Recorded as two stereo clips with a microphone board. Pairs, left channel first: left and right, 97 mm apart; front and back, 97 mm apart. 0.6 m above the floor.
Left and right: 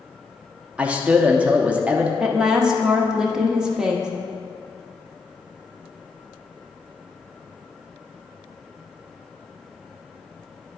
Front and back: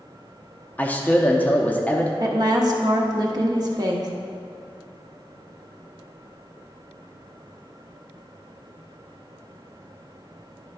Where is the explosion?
I don't hear an explosion.